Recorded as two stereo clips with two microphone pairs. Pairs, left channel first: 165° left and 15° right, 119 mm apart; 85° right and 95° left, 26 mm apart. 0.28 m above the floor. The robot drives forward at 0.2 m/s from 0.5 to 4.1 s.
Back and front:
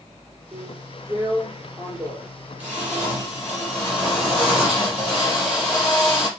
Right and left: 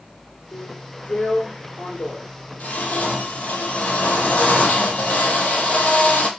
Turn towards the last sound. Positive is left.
turn(degrees=-100)